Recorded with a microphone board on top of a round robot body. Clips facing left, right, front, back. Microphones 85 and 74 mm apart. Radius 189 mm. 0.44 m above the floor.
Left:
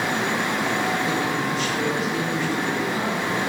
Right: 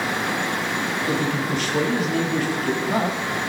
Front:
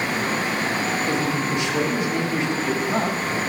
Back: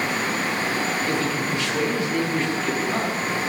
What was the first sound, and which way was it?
A man speaking, 70° right.